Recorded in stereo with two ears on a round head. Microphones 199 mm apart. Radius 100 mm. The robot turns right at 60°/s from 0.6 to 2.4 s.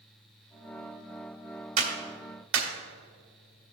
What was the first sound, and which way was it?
A clap, 45° right (ahead or behind).